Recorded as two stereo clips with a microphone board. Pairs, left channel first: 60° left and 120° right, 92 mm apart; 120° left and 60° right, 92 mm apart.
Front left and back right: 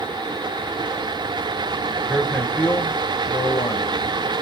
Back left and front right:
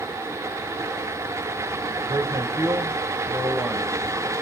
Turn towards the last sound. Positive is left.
turn(degrees=25)